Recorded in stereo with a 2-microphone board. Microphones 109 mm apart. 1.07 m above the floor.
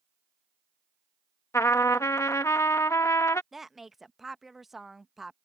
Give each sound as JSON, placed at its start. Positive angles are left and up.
{"t": 1.5, "sound": "a trumpet", "side_deg": 25}
{"t": 3.5, "sound": "a woman speaking", "side_deg": 0}